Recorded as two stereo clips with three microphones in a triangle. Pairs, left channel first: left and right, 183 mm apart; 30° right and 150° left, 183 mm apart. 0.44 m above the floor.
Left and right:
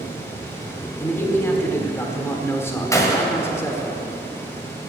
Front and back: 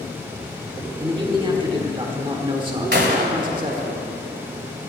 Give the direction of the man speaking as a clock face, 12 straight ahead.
7 o'clock.